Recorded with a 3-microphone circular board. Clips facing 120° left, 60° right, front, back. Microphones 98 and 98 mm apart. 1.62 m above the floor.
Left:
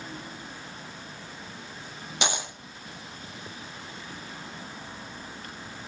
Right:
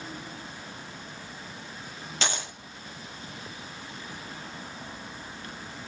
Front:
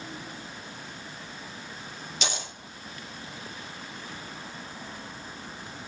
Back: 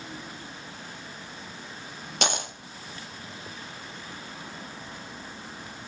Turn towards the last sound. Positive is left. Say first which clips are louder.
# left 2 dB, back 6 dB
turn(degrees=-170)